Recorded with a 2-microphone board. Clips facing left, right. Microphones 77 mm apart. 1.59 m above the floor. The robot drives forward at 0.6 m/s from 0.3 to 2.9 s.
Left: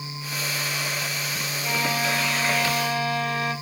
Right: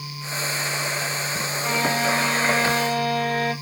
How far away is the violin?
About 2 m.